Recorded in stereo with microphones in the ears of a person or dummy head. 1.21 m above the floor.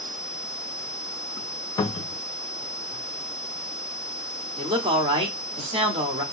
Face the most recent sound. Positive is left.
turn(degrees=-25)  # may be behind; listen again after turning